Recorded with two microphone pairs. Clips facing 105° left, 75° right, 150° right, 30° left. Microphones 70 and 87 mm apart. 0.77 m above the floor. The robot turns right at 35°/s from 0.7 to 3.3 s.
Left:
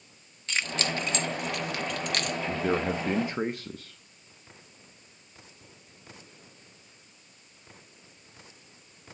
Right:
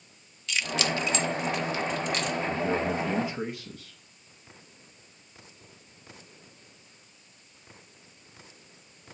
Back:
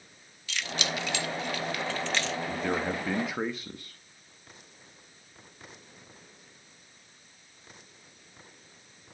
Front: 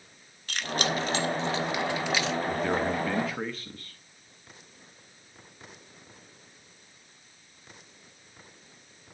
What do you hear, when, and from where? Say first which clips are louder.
0.5 s keys jangling: right 2 dB, front 4 dB; 65° left, 0.8 m; by 2.4 s 120° left, 0.8 m
2.5 s a man speaking: left 2 dB, front 2 dB; 115° left, 0.7 m; by 4.0 s 140° left, 0.7 m